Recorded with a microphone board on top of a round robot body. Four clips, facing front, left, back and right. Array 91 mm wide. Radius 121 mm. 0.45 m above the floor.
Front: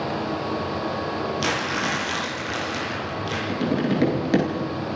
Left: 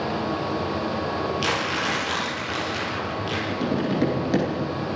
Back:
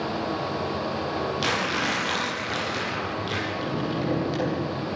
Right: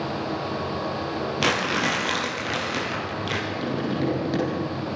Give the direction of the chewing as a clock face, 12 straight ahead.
I don't hear chewing.